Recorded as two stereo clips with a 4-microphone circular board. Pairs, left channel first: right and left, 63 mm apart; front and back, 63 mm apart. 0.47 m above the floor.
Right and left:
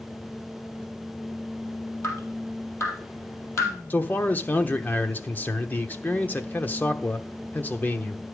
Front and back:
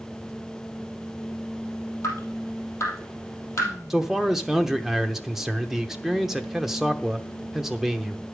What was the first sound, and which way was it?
Dripping, 45° right.